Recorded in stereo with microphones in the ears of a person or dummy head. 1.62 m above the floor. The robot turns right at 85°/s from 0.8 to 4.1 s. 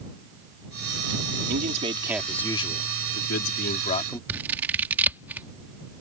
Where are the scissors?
10° right (ahead or behind).